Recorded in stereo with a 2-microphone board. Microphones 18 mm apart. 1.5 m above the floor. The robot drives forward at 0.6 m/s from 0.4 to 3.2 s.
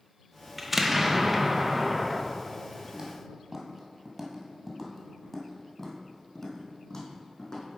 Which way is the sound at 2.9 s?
25° right (ahead or behind).